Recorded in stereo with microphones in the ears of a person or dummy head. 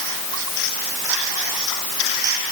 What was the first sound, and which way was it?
Only background noise.